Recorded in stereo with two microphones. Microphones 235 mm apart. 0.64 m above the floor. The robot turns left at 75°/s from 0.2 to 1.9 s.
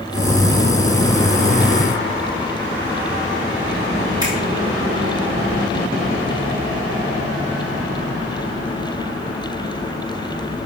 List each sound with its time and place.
4.2 s a finger snap: 15° right (ahead or behind), 5.5 m